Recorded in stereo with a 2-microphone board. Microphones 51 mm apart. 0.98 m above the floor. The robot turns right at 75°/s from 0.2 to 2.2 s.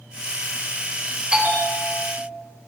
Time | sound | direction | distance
1.3 | a bell | 160° right | 2 m